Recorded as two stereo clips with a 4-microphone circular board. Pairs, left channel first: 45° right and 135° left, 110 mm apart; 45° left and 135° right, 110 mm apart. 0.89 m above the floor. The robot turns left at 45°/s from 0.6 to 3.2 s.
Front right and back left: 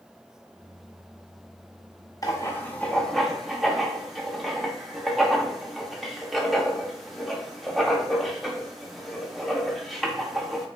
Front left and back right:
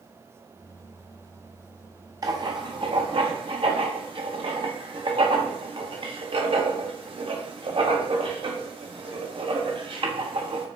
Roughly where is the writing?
Right.